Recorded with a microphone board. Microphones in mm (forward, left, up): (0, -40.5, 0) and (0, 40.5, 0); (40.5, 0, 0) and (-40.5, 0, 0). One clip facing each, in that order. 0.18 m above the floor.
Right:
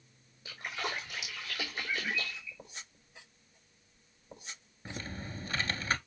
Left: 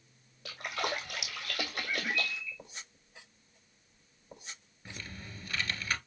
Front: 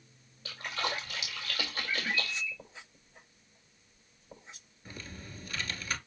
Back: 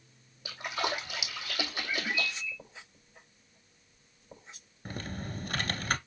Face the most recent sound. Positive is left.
turn(degrees=-150)